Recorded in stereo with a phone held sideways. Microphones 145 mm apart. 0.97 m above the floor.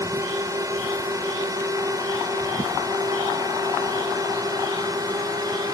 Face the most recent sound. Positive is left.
turn(degrees=-25)  # may be behind; listen again after turning